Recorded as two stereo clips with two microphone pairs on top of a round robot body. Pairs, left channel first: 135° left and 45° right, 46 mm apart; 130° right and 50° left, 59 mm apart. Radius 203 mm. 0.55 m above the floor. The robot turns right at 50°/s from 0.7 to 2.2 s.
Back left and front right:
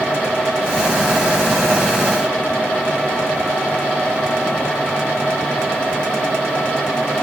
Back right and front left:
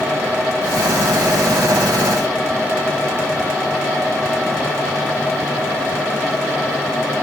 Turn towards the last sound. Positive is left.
No sound to turn to.